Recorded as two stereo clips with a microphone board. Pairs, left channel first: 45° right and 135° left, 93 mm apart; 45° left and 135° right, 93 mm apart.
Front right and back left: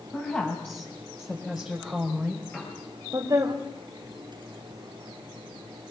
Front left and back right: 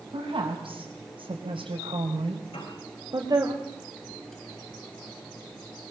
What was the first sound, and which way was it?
A woman speaking, 115° right.